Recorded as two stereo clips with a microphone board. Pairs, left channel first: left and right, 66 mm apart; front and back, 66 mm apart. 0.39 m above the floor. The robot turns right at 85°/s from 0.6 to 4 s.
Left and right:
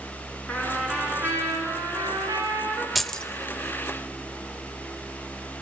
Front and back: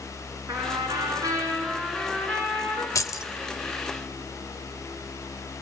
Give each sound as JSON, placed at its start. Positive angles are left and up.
{"t": 0.5, "sound": "a trumpet", "azimuth_deg": 160, "distance_m": 5.5}
{"t": 3.0, "sound": "keys jangling", "azimuth_deg": -5, "distance_m": 0.9}